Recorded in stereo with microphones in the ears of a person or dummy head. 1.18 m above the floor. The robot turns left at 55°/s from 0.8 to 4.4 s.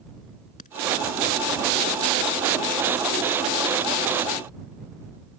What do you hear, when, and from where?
0.6 s a crack: 40° left (ahead or behind)